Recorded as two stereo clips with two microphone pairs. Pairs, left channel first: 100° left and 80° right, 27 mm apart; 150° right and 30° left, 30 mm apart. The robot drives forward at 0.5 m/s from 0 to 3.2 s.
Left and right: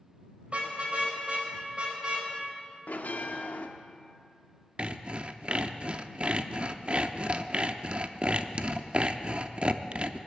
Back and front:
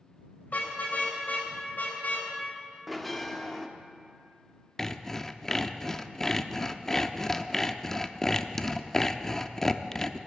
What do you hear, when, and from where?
0.5 s a car horn: 120° right, 3 m; by 2.3 s 135° right, 3.5 m
2.9 s a bell: 115° left, 0.9 m; by 3.7 s 125° left, 0.9 m
4.8 s sawing: 85° right, 0.5 m